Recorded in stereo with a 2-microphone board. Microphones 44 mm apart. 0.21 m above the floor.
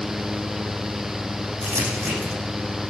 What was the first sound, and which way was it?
Crumpling, 75° right (ahead or behind).